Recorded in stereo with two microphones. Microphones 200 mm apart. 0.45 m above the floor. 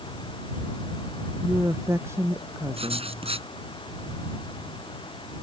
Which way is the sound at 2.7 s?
30° right (ahead or behind).